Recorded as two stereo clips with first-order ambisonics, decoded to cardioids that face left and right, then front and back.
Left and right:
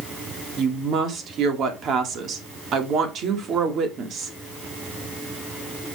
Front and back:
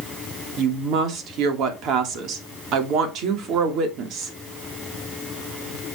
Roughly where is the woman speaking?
Behind right.